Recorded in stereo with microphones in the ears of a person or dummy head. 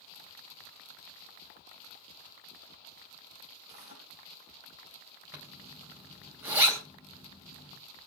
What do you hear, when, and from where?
3.7 s tearing paper: 30° right (ahead or behind), 8 m
5.3 s a zipper: 10° right (ahead or behind), 3.5 m